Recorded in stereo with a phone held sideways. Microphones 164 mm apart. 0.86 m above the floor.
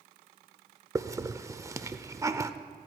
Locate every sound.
0.9 s a hiss: 20° right (ahead or behind), 0.5 m